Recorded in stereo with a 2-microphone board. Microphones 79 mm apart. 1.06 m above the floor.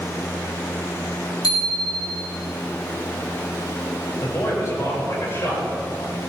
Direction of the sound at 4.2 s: 40° left (ahead or behind).